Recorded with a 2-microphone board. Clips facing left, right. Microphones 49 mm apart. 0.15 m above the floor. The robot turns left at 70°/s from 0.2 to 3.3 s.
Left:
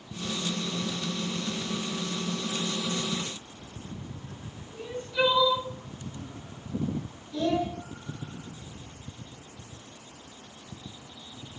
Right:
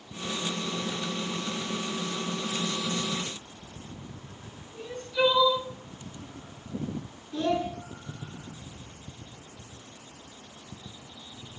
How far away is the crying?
About 0.7 m.